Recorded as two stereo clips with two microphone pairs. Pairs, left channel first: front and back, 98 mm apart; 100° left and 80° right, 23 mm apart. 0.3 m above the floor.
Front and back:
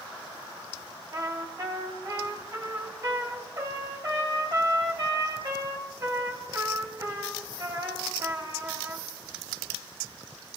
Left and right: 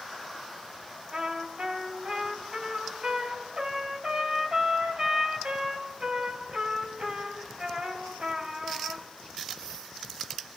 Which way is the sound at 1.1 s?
115° right.